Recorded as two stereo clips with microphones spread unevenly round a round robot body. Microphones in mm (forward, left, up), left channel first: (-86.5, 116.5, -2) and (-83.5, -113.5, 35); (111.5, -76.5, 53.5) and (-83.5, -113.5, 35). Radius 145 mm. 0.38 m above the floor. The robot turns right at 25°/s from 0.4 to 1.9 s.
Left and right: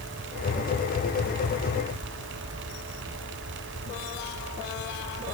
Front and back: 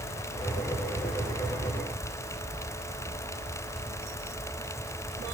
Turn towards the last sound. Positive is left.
No sound to turn to.